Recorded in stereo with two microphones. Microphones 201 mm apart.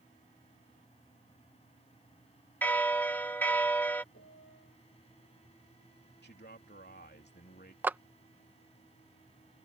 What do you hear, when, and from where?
2.6 s a bell: 10° left (ahead or behind)
4.1 s a piano: 80° left
6.2 s a man speaking: 55° left (ahead or behind)
7.8 s a clap: 10° right (ahead or behind)